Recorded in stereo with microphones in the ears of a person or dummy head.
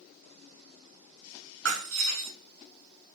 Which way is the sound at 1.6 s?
70° right (ahead or behind).